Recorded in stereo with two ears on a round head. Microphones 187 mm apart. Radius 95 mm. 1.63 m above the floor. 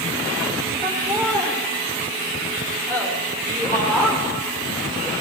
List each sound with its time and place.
0.8 s laughter: 10° left (ahead or behind), 5 m